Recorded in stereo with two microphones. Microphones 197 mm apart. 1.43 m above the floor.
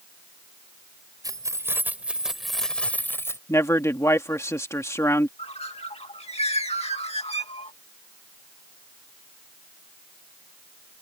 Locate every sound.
1.2 s keys jangling: 20° right (ahead or behind); by 3.4 s 15° left (ahead or behind)
3.5 s a man speaking: 15° left (ahead or behind)
5.4 s a bird: 35° left (ahead or behind)